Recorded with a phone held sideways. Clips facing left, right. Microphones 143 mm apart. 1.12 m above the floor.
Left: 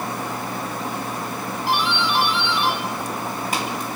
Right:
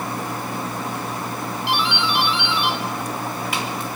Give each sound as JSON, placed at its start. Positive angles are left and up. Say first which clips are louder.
{"t": 1.7, "sound": "a doorbell", "louder": "left 1 dB", "side_deg": 40, "distance_m": 3.5}